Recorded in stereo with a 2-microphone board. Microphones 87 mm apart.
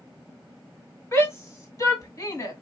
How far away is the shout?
About 2 m.